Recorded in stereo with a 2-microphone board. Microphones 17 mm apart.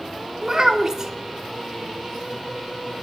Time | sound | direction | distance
0.4 | a child speaking | 25° right (ahead or behind) | 0.8 m